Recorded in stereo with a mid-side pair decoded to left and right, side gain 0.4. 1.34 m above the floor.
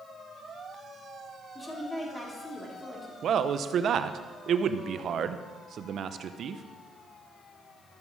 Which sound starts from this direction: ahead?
A woman speaking, at 1.6 s.